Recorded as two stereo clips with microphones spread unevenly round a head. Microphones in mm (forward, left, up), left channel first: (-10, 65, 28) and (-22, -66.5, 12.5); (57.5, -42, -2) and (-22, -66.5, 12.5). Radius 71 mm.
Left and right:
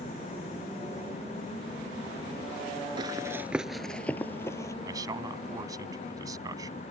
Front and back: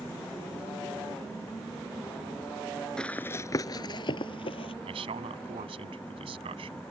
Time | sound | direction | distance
3.0 | running footsteps | 75° right | ?
4.8 | a man speaking | 160° right | ?